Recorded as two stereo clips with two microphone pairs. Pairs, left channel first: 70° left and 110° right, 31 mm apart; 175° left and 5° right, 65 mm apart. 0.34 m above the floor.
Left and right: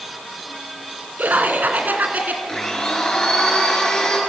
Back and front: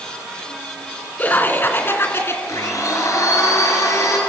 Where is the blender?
140° left, 5.5 m.